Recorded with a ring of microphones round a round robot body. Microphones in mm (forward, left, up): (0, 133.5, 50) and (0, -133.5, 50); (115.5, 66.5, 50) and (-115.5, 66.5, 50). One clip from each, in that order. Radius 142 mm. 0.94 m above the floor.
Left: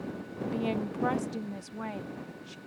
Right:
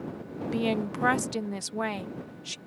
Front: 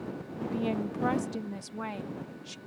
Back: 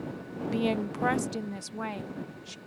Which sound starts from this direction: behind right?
A woman speaking, at 0.5 s.